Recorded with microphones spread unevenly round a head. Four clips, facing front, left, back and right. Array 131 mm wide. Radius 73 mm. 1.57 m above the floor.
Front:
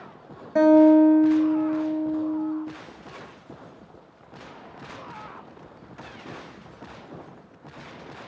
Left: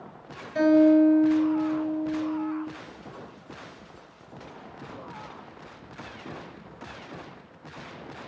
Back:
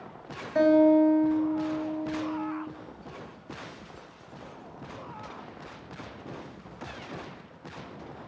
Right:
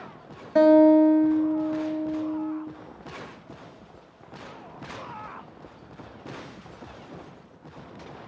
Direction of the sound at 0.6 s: 40° right.